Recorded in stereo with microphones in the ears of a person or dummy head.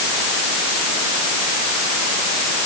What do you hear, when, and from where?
Only background noise.